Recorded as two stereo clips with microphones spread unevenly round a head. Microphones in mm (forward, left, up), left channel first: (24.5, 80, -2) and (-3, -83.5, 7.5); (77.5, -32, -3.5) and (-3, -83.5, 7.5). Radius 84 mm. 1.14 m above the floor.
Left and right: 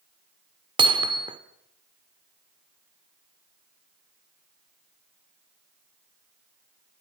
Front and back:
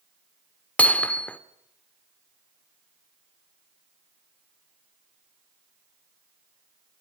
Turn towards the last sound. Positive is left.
turn(degrees=-45)